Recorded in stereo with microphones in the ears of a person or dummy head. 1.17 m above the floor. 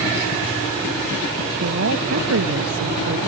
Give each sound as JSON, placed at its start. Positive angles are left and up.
{"t": 1.6, "sound": "a woman speaking", "side_deg": -65}